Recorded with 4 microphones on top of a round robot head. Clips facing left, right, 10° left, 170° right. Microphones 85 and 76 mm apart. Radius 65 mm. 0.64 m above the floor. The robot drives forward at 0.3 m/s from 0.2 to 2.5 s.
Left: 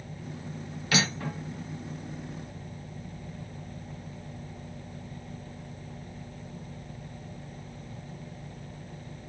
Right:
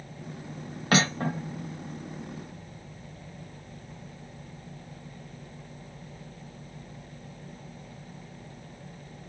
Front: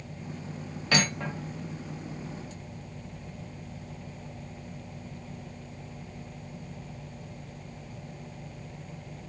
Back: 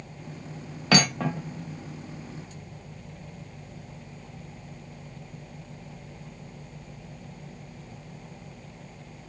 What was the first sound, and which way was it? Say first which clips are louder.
Cutlery clinking: right 5 dB, back 5 dB; 145° right.